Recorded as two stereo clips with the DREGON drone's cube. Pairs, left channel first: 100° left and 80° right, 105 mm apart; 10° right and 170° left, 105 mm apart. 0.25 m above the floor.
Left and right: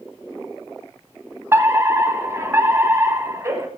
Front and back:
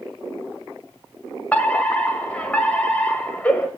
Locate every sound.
1.5 s a fire alarm: 65° right, 2 m